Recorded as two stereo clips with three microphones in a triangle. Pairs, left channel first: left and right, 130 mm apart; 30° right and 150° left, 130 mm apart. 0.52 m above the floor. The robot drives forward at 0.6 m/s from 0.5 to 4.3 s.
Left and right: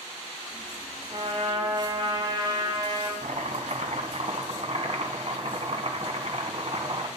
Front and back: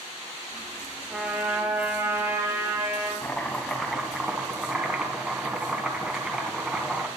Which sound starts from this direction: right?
Chopping, at 3.2 s.